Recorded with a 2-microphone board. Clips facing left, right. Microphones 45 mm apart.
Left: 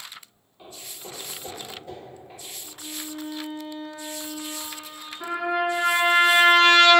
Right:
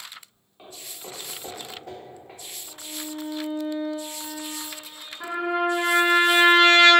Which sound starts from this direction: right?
Footsteps, at 0.6 s.